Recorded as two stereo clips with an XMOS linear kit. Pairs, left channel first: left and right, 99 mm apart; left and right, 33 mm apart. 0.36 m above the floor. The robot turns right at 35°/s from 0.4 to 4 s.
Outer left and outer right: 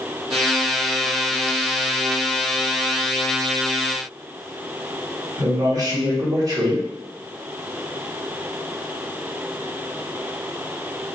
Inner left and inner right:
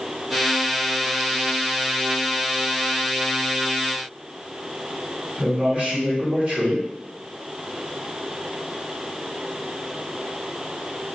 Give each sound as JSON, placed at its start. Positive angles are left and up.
{"t": 5.4, "sound": "a man speaking", "side_deg": -40, "distance_m": 1.0}